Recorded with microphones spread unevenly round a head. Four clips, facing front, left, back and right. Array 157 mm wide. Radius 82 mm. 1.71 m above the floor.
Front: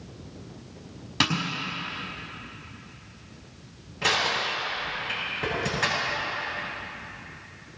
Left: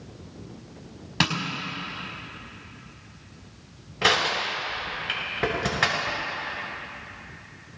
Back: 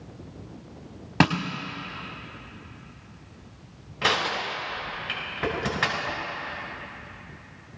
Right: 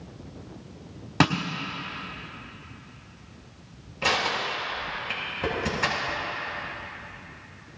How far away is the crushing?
About 6 m.